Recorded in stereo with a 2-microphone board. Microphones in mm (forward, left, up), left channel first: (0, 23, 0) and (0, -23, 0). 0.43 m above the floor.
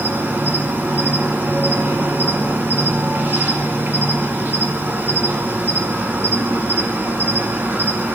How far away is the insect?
About 1.6 m.